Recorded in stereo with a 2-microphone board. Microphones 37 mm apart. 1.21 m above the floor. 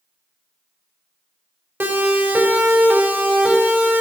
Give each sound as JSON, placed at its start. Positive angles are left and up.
{"t": 1.8, "sound": "a siren", "side_deg": -75, "distance_m": 4.0}